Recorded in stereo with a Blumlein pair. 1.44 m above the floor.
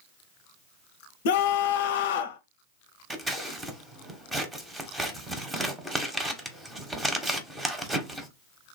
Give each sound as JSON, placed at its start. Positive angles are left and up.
{"t": 1.2, "sound": "a scream", "azimuth_deg": 55, "distance_m": 0.6}
{"t": 3.1, "sound": "scissors", "azimuth_deg": -10, "distance_m": 1.0}